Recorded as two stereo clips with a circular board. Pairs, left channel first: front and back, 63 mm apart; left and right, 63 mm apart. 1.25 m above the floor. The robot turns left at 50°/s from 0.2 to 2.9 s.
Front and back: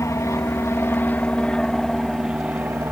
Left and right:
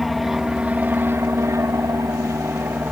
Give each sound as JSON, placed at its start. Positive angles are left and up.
{"t": 0.0, "sound": "an aircraft", "azimuth_deg": -5}